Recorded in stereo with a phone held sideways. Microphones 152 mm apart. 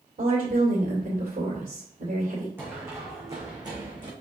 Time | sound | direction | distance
0.2 | a woman speaking | 70° right (ahead or behind) | 2 m
2.6 | running footsteps | 15° right (ahead or behind) | 3 m